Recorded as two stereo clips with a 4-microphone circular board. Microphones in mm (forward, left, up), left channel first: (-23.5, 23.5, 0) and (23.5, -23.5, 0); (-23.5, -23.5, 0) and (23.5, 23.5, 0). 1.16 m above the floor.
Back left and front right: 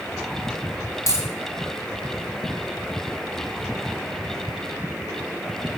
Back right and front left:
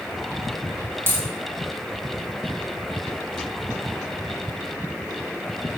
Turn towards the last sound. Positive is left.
turn(degrees=100)